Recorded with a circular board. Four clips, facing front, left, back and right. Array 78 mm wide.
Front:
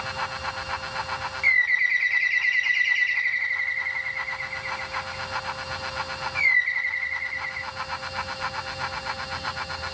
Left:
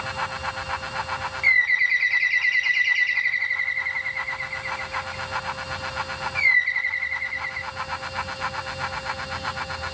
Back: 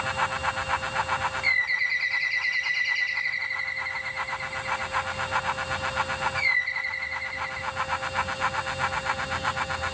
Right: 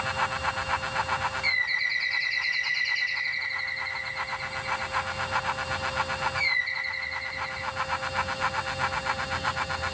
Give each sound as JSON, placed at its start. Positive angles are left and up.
{"t": 1.4, "sound": "a bird", "azimuth_deg": 55, "distance_m": 1.6}